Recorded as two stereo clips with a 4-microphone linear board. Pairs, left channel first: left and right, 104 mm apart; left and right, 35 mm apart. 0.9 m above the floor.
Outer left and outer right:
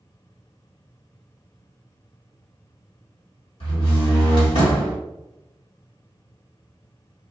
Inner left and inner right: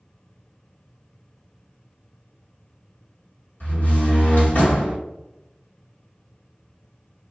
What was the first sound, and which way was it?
A door slam, 60° left (ahead or behind).